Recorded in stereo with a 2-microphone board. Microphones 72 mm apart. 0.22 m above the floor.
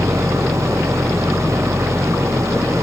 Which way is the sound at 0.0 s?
40° right (ahead or behind).